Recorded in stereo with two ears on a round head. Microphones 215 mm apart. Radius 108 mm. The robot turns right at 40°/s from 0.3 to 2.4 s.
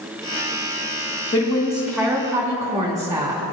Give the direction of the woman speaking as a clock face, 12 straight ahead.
7 o'clock.